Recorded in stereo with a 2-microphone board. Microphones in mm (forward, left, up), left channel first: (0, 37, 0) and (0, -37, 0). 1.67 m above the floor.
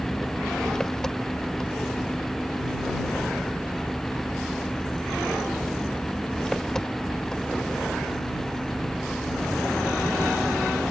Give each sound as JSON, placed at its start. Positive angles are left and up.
{"t": 0.0, "sound": "an engine running", "side_deg": 10}